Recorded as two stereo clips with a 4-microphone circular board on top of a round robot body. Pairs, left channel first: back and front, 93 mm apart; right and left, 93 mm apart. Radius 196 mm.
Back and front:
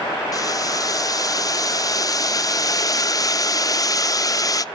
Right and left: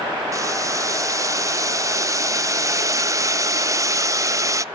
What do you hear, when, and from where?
0.3 s boiling: 135° left, 0.5 m